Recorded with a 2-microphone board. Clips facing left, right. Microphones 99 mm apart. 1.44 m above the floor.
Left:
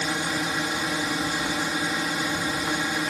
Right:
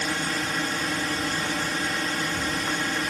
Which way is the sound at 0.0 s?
10° left (ahead or behind).